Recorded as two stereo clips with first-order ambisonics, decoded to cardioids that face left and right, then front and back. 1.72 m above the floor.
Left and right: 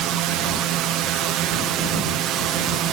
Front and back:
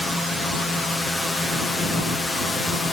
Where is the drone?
90° right; by 2.9 s 80° right.